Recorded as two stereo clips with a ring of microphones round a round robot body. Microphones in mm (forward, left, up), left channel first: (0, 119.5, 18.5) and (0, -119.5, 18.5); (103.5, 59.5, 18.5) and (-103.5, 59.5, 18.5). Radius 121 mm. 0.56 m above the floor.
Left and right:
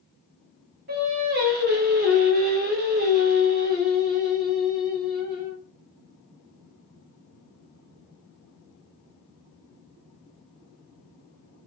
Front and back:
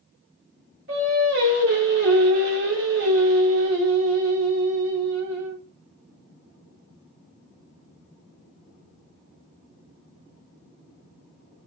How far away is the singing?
About 0.8 m.